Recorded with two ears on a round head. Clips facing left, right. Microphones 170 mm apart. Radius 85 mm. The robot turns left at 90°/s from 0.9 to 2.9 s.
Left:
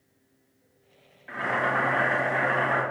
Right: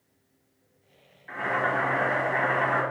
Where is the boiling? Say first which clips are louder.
Even; 135° left, 1.7 m; by 2.8 s straight ahead, 1.7 m.